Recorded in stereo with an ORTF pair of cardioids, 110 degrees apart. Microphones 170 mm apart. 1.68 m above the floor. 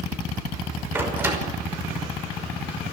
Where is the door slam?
10° right, 5.5 m.